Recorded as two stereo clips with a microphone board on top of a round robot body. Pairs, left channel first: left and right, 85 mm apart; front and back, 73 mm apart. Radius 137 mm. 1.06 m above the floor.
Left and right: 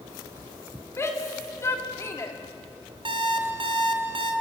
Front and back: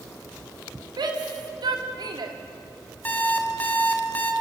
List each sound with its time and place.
1.0 s a shout: 150° left, 3 m
3.0 s an alarm clock: 70° right, 1.9 m